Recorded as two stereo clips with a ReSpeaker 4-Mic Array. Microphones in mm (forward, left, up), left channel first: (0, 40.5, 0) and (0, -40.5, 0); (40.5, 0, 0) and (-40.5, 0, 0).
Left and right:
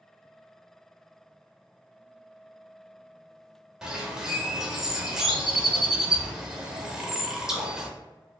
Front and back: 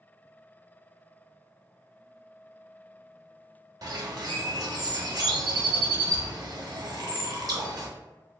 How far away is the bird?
About 0.6 m.